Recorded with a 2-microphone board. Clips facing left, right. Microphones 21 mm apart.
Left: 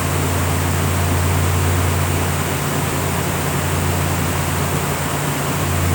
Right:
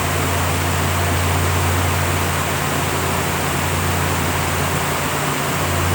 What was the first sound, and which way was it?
Only background noise.